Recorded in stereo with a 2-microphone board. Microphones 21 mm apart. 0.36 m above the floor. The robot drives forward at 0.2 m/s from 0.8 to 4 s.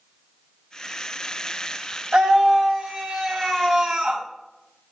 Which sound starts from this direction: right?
A scream, at 2.1 s.